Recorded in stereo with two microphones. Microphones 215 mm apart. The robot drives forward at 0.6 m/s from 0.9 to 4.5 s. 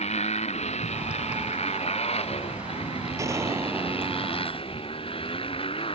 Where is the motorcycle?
30° left (ahead or behind); by 6.0 s 25° left (ahead or behind).